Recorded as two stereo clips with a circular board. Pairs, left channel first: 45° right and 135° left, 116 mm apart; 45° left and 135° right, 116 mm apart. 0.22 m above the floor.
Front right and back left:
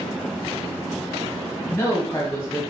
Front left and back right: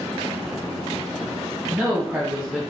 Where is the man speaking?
65° right, 1.0 m.